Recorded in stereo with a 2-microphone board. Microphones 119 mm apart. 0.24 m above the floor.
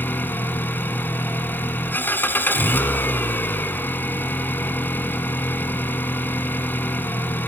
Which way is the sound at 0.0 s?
15° left (ahead or behind).